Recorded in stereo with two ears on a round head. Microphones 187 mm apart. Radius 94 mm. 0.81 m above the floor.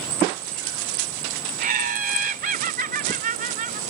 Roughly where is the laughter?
Right.